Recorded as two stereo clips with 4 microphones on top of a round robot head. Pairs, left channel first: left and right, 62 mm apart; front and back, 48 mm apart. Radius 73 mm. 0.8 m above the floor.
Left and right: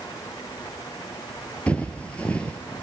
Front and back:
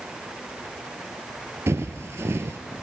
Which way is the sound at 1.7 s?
165° left.